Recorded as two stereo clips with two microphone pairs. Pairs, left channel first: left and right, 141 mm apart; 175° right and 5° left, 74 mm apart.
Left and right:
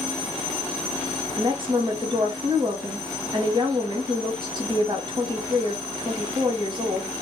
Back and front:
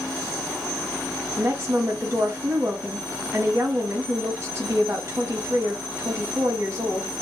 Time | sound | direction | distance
1.4 | a woman speaking | 35° right | 1.2 m